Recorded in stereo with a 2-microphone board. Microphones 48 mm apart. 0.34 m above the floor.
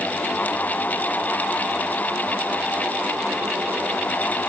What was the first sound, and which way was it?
Only background noise.